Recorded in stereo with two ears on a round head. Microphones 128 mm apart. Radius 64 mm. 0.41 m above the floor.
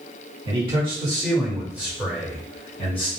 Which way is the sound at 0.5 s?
40° right (ahead or behind).